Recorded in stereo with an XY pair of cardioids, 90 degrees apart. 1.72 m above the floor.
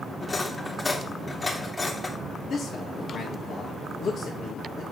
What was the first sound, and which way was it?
Cutlery clinking, 30° left.